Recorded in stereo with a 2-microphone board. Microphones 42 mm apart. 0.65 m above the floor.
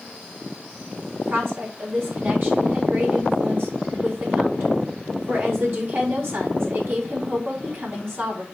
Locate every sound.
1.1 s a woman speaking: 60° right (ahead or behind), 3.5 m